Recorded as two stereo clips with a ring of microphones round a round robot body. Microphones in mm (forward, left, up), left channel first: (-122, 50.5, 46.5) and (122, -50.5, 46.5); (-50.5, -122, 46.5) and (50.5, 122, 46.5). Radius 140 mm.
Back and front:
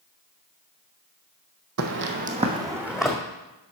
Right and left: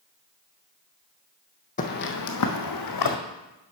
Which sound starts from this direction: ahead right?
Footsteps, at 1.8 s.